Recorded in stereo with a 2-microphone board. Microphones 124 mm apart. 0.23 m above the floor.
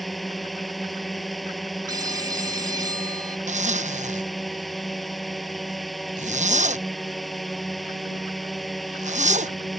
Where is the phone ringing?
30° right (ahead or behind).